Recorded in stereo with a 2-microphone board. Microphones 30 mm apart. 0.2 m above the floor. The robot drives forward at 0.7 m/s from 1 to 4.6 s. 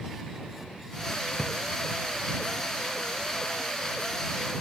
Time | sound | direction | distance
1.4 | a drawer | 10° left (ahead or behind) | ?